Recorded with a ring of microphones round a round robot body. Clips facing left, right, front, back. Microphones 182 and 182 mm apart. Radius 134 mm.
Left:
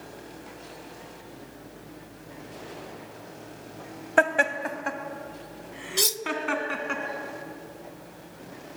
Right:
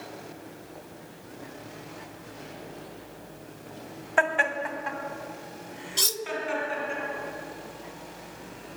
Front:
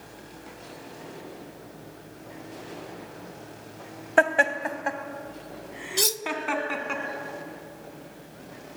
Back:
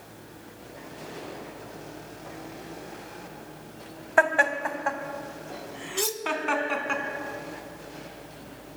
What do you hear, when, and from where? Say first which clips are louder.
4.2 s laughter: left 3 dB, front 1 dB; 55° left, 2 m; by 7.0 s 85° left, 3.5 m
6.0 s cutlery clinking: left 4 dB, even; 20° left, 0.6 m